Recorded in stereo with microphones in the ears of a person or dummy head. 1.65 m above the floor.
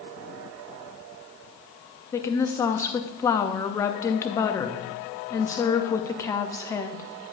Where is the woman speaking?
20° left (ahead or behind), 0.5 m.